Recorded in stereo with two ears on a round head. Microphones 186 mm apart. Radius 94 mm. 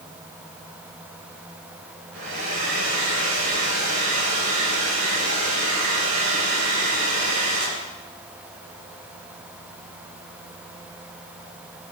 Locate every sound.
2.1 s a hair dryer: 60° right (ahead or behind), 9.5 m